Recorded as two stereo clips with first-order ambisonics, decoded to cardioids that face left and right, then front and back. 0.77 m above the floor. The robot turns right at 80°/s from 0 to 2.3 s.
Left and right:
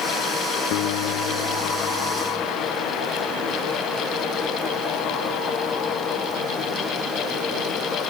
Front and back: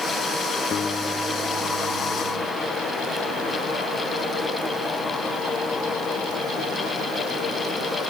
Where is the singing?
No singing in this recording.